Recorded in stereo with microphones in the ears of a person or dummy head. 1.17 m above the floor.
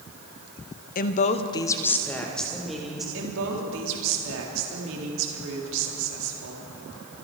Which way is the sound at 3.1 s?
70° right (ahead or behind).